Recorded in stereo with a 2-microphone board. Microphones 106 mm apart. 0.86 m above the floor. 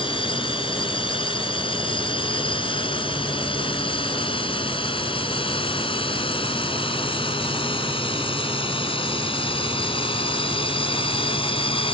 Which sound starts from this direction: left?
A drone, at 0.0 s.